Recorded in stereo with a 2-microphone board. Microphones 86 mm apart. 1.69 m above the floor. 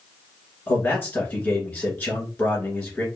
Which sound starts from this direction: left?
A man speaking, at 0.7 s.